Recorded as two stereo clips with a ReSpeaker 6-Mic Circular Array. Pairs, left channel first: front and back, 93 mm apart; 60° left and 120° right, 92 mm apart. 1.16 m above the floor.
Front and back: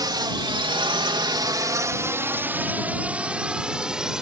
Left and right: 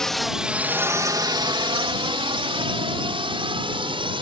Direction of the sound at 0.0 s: 145° left.